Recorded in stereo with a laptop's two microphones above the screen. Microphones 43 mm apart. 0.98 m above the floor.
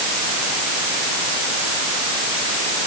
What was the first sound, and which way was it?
Only background noise.